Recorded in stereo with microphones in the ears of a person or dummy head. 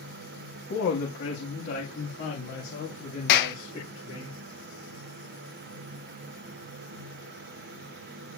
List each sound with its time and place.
0.7 s a woman speaking: 65° left (ahead or behind), 1.8 m; by 4.3 s 35° left (ahead or behind), 4 m
3.3 s a clap: 55° left (ahead or behind), 0.9 m